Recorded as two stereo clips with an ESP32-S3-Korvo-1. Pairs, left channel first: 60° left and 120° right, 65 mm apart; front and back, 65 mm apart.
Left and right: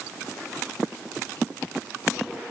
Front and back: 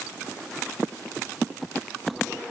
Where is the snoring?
No snoring in this recording.